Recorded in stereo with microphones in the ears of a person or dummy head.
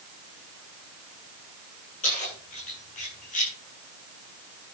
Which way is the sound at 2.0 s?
40° left (ahead or behind).